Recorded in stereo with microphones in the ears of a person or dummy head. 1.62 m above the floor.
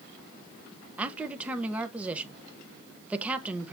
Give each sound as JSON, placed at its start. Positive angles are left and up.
{"t": 1.0, "sound": "a man speaking", "side_deg": 0, "distance_m": 1.1}